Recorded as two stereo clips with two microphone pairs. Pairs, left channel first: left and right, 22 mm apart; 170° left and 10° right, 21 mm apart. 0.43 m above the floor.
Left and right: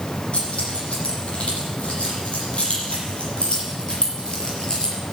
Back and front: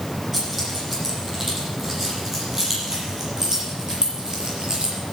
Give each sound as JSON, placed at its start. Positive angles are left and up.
{"t": 0.3, "sound": "keys jangling", "azimuth_deg": 75, "distance_m": 9.5}